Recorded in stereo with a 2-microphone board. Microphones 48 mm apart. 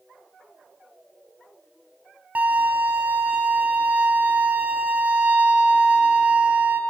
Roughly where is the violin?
Right.